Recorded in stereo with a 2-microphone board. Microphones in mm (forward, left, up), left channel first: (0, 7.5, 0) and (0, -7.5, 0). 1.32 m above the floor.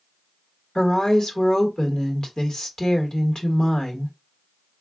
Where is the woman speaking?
55° left (ahead or behind), 1.3 m.